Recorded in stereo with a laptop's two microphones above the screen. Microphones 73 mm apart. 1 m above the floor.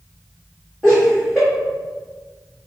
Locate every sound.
0.8 s laughter: 10° left (ahead or behind), 1.3 m